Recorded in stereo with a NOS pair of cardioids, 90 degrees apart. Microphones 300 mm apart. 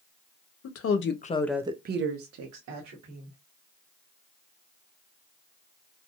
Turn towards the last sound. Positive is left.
turn(degrees=-75)